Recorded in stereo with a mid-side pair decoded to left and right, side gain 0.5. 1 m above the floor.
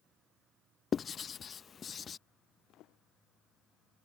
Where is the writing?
40° left.